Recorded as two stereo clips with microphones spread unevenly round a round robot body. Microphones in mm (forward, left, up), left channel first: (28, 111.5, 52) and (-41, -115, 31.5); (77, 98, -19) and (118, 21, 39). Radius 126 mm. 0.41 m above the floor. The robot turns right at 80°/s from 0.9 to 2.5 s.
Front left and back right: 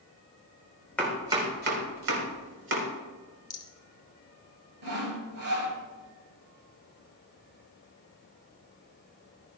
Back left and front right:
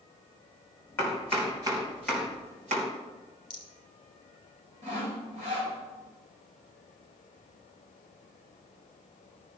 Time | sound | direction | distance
1.0 | chopping | 160° left | 3 m
3.5 | a rattle | 150° left | 1.0 m
4.8 | sawing | 95° right | 3 m